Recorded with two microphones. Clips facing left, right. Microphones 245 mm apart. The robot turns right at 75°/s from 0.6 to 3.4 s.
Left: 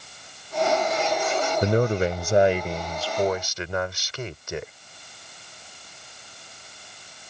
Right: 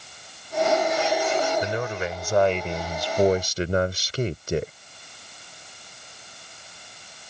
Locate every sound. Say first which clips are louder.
1.6 s a man speaking: left 7 dB; 95° left; by 4.7 s 130° right